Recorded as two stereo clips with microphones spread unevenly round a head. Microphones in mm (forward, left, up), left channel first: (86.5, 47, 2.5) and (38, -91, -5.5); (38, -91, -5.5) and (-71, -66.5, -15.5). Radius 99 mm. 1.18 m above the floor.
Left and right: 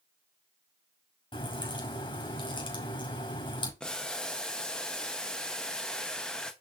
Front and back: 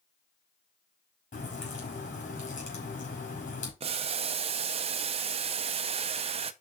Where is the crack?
15° left, 5 m.